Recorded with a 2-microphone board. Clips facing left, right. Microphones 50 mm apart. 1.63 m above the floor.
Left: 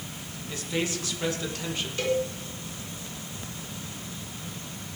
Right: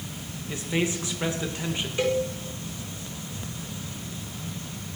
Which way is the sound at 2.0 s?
20° right (ahead or behind).